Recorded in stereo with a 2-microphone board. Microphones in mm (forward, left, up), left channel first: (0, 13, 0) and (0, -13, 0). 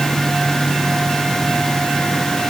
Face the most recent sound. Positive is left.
No sound to turn to.